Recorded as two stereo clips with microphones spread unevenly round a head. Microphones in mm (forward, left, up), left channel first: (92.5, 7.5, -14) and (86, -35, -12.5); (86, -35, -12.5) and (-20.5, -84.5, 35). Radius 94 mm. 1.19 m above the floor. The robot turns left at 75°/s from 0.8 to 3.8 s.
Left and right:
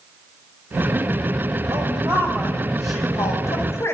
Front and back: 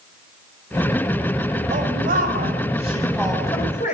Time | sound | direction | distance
1.7 | a woman speaking | 130° right | 8.5 m